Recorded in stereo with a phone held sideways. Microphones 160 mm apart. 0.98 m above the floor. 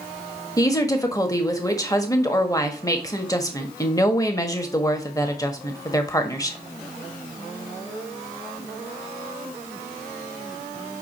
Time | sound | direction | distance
0.6 | a woman speaking | 20° left (ahead or behind) | 1.4 m